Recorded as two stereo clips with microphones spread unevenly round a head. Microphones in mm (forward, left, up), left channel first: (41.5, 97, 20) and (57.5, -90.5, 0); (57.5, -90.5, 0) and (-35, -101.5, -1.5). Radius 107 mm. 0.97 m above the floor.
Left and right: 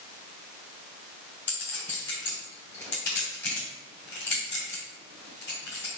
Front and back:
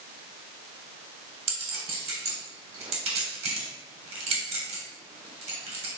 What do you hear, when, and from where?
1.5 s a clink: 175° left, 1.5 m